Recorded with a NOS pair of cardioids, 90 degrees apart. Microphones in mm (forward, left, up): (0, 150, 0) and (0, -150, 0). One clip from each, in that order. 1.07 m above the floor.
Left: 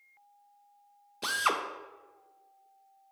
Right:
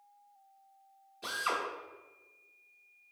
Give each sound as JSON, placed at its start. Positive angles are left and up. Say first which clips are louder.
{"t": 1.2, "sound": "a drill", "louder": "left 5 dB", "azimuth_deg": 55, "distance_m": 0.5}